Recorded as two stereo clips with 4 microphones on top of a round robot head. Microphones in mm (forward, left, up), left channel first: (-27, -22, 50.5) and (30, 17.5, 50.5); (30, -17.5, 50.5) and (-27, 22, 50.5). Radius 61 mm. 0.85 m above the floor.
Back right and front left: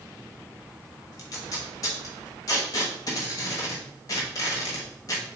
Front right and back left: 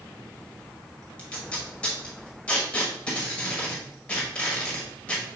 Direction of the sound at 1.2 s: 105° right.